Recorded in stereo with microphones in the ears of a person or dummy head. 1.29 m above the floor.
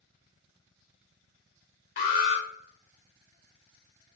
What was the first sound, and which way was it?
An alarm, 35° left (ahead or behind).